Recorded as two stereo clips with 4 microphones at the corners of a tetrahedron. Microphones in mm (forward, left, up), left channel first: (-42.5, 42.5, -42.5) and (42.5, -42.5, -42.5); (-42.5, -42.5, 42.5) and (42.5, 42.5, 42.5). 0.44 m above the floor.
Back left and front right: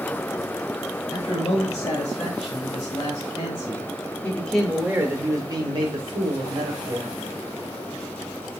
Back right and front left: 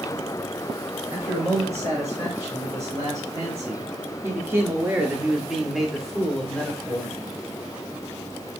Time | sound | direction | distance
1.1 | a man speaking | 110° left | 2.5 m